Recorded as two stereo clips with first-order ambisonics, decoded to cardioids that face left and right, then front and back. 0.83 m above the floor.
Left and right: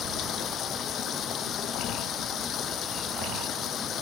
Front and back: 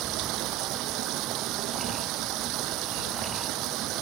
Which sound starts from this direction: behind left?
Running water, at 0.0 s.